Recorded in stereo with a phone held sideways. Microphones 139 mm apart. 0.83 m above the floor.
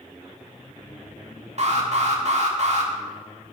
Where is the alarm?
50° right (ahead or behind), 2.5 m.